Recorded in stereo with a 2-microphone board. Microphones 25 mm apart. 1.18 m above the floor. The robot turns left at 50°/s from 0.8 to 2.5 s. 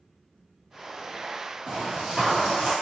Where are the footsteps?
15° right (ahead or behind), 1.2 m; by 2.7 s 20° right (ahead or behind), 1.4 m.